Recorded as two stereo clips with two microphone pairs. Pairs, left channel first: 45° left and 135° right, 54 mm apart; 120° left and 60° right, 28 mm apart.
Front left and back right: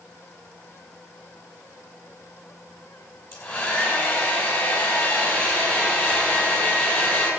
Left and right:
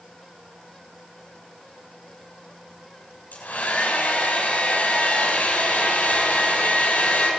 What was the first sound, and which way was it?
A hair dryer, 95° left.